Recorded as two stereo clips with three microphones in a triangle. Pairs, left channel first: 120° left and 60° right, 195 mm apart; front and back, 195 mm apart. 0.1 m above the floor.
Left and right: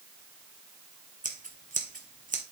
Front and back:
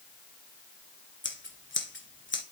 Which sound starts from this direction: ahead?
Scissors, at 1.2 s.